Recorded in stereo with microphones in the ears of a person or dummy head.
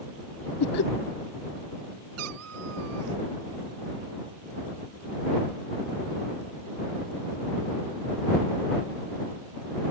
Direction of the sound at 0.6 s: 60° left (ahead or behind).